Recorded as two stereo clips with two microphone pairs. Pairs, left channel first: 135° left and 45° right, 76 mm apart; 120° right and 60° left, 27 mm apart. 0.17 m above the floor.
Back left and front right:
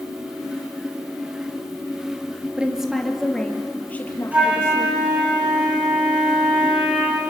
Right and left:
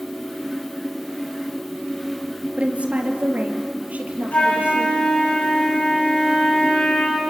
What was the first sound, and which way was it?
A woman speaking, 30° left.